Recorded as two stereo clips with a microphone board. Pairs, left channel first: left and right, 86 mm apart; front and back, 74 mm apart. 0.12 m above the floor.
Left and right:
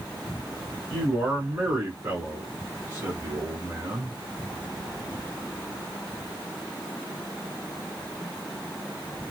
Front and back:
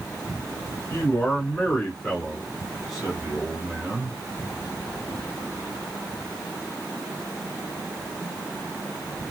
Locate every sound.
0.9 s a man speaking: 10° right, 1.5 m; by 4.2 s 135° right, 1.7 m